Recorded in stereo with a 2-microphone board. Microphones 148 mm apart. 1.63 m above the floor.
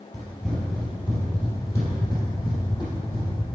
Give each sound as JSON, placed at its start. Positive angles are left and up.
{"t": 0.1, "sound": "running footsteps", "side_deg": 0, "distance_m": 2.5}